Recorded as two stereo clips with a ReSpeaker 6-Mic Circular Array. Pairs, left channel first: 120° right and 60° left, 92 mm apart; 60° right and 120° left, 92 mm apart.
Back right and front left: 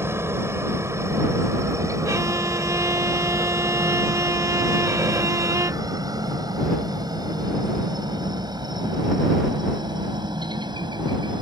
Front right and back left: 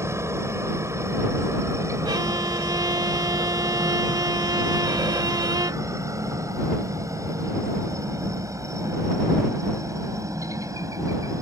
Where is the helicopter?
95° left; by 11.4 s 75° left.